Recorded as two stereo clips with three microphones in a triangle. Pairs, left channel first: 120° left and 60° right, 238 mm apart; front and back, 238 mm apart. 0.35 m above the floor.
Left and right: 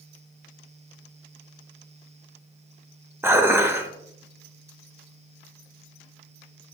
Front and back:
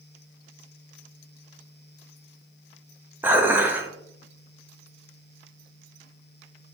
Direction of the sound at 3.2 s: 120° right.